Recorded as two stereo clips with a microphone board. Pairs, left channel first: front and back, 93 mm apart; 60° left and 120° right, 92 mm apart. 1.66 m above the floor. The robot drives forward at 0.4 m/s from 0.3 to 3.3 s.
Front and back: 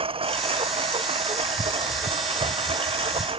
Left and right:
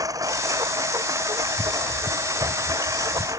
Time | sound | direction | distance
0.0 | a lawn mower | 170° right | ?